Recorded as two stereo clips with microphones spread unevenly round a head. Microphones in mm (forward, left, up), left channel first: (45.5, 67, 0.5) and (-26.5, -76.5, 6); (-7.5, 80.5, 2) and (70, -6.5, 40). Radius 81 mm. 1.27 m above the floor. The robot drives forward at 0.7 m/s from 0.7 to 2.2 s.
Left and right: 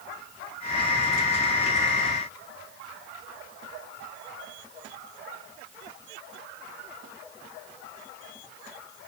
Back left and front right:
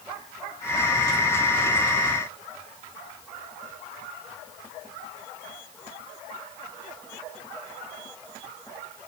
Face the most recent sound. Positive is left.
No sound to turn to.